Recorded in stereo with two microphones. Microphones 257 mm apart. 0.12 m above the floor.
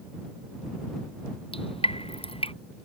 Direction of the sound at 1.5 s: 20° left (ahead or behind).